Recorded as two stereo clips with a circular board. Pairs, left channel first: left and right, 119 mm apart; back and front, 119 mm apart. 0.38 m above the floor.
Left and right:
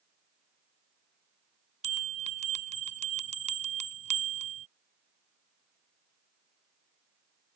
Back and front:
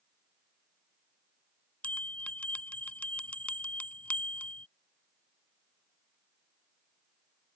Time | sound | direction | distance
1.8 | a bell | 100° right | ?